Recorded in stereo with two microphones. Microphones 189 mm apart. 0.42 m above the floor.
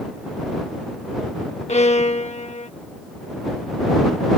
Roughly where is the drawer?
I don't hear a drawer.